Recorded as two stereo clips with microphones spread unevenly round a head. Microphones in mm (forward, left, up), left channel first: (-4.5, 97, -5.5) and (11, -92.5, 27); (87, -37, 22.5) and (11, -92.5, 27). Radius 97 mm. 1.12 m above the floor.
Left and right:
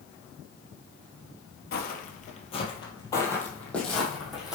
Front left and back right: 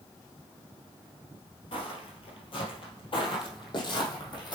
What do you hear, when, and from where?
1.7 s footsteps: 60° left, 1.6 m; by 4.6 s 5° right, 3 m